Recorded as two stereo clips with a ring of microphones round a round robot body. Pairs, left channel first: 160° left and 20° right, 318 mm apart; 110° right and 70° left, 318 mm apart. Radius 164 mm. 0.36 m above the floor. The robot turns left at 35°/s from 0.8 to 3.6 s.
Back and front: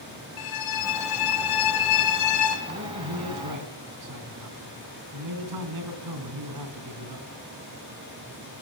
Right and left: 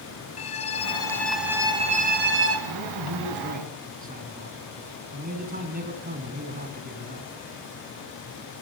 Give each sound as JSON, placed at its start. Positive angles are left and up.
{"t": 0.4, "sound": "a violin", "azimuth_deg": 175, "distance_m": 4.5}
{"t": 2.7, "sound": "a man speaking", "azimuth_deg": 35, "distance_m": 3.5}